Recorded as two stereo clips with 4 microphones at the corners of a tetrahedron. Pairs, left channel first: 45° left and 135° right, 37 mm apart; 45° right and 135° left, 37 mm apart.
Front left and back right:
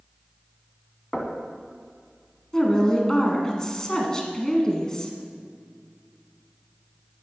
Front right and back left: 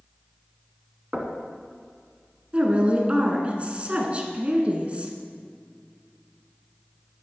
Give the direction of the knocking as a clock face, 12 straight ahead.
8 o'clock.